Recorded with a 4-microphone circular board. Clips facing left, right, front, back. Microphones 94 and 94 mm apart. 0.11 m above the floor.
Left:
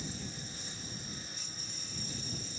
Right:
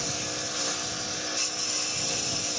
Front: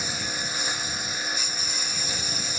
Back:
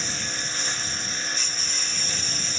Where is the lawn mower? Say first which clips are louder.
Right 9 dB, front 1 dB; 80° right.